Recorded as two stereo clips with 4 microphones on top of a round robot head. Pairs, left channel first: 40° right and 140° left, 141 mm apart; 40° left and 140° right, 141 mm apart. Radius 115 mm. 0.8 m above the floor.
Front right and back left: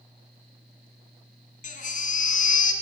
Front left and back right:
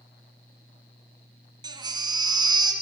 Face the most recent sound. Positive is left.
turn(degrees=-75)